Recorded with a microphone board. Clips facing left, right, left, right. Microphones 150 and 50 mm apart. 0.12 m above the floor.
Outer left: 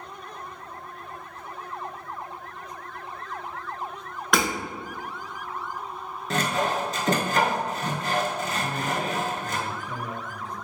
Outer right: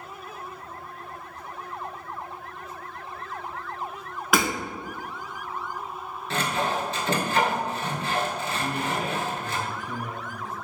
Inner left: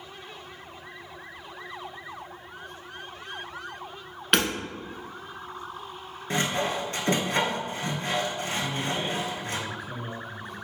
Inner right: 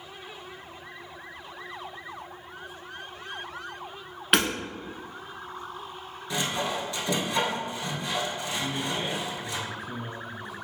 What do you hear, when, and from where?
4.3 s hammering: 5° right (ahead or behind), 0.8 m
6.3 s sawing: 45° left (ahead or behind), 0.7 m
8.6 s a man speaking: 15° right (ahead or behind), 1.6 m